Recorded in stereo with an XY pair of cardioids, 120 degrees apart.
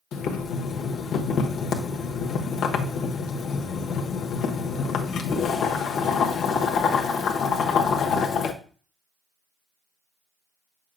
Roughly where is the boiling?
Left.